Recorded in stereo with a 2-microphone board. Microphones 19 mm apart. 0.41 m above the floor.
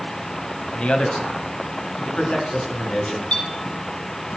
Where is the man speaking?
65° left (ahead or behind), 1.8 m; by 3.2 s 80° left, 5 m.